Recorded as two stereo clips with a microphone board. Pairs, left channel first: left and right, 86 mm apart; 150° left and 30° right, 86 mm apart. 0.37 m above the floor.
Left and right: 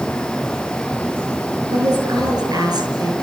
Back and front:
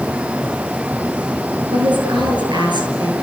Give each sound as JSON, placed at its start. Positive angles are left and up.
{"t": 1.7, "sound": "a woman speaking", "azimuth_deg": -55, "distance_m": 8.0}